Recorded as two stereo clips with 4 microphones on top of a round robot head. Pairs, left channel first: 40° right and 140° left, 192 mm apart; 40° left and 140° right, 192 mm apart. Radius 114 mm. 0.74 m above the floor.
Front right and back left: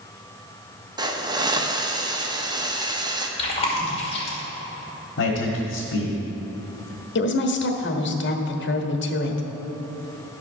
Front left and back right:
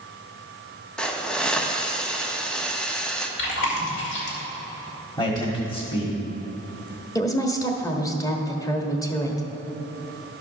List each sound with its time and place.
1.0 s a hiss: 120° left, 1.1 m
3.4 s chewing: 20° left, 2 m
5.2 s a man speaking: 30° right, 1.6 m
7.2 s a woman speaking: 30° right, 1.3 m